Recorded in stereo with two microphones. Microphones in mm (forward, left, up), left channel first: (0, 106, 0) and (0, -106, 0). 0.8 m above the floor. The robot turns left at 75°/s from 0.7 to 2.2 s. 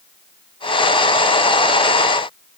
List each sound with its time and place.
Only background noise.